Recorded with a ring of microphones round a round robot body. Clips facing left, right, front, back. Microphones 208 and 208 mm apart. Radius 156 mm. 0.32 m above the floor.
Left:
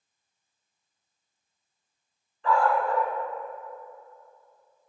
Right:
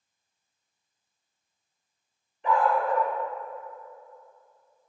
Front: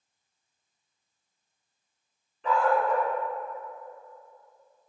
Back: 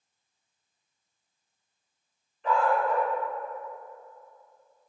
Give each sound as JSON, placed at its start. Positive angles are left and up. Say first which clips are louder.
{"t": 2.4, "sound": "a dog barking", "louder": "even, front 1 dB", "azimuth_deg": -15, "distance_m": 1.1}